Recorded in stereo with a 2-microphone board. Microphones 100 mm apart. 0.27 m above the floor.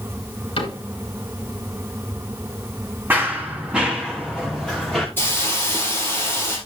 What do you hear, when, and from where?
0.6 s a cupboard door: 65° left (ahead or behind), 3.5 m
3.1 s running footsteps: 20° right (ahead or behind), 1.9 m; by 5.1 s 5° left (ahead or behind), 3 m
5.2 s a hiss: 20° left (ahead or behind), 4 m